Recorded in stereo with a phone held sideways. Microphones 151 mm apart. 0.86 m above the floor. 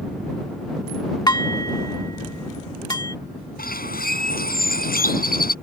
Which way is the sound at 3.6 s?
80° left.